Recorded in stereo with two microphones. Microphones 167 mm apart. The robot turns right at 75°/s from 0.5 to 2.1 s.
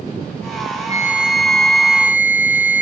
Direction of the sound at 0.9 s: 40° left.